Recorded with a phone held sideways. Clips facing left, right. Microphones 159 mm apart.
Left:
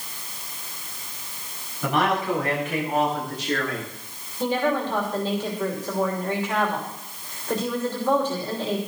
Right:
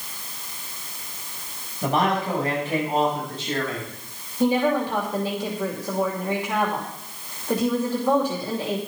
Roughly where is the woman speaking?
Centre.